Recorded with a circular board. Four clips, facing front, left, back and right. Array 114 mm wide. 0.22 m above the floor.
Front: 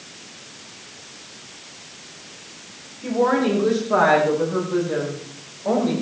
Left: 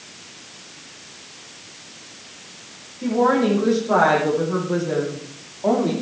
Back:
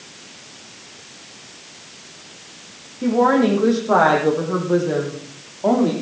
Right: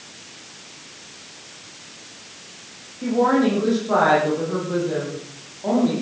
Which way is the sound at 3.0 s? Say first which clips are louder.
Even, back 4 dB; straight behind.